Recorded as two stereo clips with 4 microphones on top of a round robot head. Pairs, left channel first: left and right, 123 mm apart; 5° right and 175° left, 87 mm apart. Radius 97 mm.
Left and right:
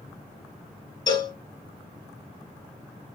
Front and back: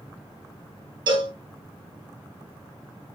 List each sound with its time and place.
1.1 s a cowbell: 150° left, 1.9 m